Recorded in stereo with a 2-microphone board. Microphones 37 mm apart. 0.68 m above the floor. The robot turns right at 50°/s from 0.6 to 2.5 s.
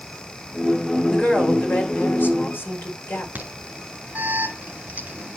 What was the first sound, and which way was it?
A woman speaking, 20° left.